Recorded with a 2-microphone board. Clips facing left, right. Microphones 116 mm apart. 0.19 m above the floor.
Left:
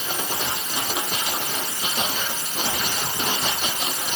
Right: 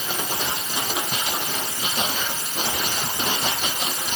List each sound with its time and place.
Only background noise.